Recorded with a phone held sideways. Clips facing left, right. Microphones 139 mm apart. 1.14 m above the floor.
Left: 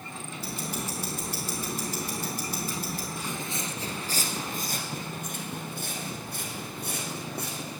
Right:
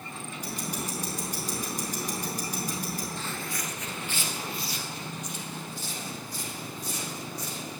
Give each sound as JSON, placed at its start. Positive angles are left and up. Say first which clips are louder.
{"t": 0.4, "sound": "ticking", "louder": "even", "side_deg": -15, "distance_m": 4.0}
{"t": 3.2, "sound": "footsteps", "louder": "left 1 dB", "side_deg": 10, "distance_m": 1.1}